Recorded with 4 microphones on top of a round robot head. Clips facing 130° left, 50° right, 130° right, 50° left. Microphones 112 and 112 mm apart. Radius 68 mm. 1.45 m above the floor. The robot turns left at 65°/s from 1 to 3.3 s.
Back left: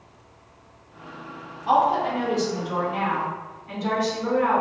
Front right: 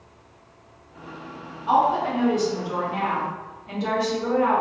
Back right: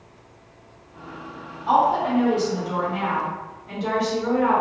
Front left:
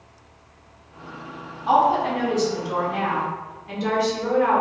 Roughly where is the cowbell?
No cowbell in this recording.